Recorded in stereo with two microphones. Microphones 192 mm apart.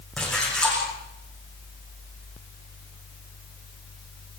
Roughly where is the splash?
Centre.